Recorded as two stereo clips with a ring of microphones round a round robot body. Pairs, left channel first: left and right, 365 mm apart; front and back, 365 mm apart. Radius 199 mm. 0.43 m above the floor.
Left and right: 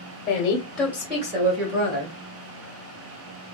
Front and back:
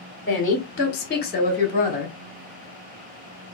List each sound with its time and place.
0.3 s a woman speaking: 45° left, 0.8 m; by 2.1 s 60° right, 1.1 m